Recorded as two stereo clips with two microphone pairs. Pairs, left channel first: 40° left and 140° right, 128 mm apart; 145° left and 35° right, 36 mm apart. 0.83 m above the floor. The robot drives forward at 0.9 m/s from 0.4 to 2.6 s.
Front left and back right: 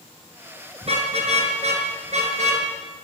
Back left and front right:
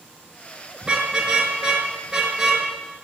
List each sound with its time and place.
0.8 s a car horn: 105° right, 6 m; by 2.6 s 115° right, 7 m